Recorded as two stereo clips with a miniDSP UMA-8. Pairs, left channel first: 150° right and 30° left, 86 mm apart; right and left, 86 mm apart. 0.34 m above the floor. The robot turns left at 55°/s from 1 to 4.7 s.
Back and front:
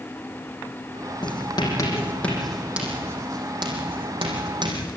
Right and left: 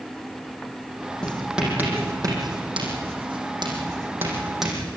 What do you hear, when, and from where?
1.2 s writing: 170° right, 6 m; by 4.9 s straight ahead, 6 m